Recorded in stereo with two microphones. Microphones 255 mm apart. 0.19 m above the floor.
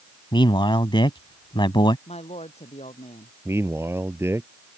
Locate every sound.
0.3 s a man speaking: 20° left (ahead or behind)
2.1 s a woman speaking: 25° left (ahead or behind)
3.5 s a man speaking: 10° right (ahead or behind)